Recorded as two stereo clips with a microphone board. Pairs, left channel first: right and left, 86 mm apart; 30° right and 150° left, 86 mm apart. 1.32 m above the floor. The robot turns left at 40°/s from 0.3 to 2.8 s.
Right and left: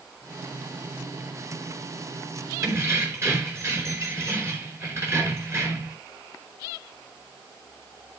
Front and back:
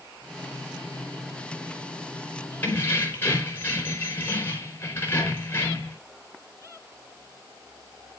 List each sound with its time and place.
2.6 s keys jangling: 40° left, 4.5 m; by 6.0 s 35° left, 4.5 m